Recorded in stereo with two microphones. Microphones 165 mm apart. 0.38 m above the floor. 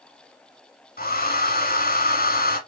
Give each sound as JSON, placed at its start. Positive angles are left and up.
{"t": 1.0, "sound": "a hair dryer", "side_deg": 65, "distance_m": 2.0}